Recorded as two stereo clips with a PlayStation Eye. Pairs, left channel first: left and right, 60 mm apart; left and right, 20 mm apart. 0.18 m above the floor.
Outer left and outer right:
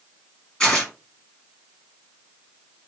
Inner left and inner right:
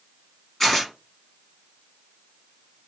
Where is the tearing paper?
10° left (ahead or behind), 1.5 m.